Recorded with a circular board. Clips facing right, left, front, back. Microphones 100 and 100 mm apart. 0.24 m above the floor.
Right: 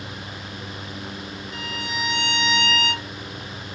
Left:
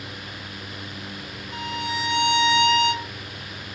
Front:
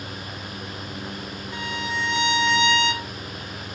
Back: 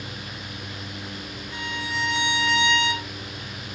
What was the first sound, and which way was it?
A violin, 65° left.